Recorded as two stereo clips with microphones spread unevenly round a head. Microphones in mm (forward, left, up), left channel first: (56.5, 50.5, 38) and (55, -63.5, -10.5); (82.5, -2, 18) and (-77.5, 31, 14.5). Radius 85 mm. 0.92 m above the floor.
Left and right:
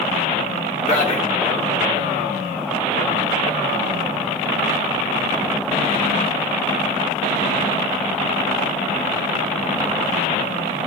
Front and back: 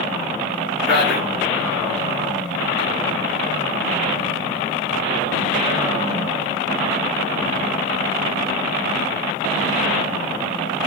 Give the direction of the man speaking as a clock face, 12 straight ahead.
9 o'clock.